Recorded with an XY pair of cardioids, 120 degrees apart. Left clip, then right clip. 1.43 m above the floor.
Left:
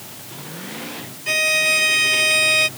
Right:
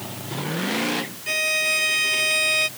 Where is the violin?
20° left.